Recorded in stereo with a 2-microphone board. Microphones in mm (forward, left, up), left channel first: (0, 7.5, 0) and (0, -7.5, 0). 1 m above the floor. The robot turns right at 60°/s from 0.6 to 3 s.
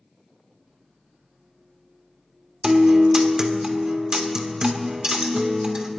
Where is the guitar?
55° right (ahead or behind), 1.2 m; by 5.9 s 50° right (ahead or behind), 1.2 m.